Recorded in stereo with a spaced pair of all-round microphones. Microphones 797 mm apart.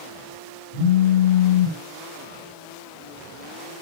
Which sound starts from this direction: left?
A phone buzzing, at 0.7 s.